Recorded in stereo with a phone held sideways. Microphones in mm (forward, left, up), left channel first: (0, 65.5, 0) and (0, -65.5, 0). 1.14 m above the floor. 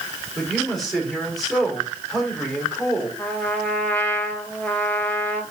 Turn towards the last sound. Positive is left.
turn(degrees=10)  # may be behind; listen again after turning